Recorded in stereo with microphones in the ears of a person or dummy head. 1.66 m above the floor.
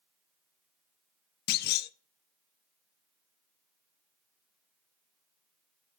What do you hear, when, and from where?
1.5 s a clunk: 55° left (ahead or behind), 0.5 m